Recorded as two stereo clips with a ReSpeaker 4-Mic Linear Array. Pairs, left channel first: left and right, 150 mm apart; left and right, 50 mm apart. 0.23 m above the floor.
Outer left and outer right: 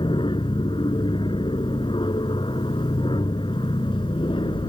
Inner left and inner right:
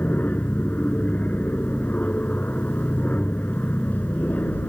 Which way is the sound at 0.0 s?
35° left (ahead or behind).